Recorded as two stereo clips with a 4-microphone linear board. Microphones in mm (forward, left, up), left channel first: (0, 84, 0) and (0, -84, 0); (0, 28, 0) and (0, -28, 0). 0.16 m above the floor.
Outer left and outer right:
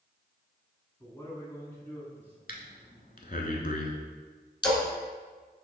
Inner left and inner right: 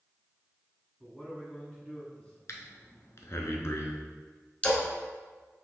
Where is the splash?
25° left (ahead or behind), 1.3 m.